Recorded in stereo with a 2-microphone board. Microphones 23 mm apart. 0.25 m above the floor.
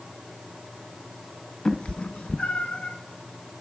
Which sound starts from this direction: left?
A cat meowing, at 1.6 s.